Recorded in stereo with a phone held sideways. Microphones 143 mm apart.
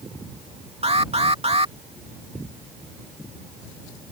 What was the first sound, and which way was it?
An alarm, 45° right (ahead or behind).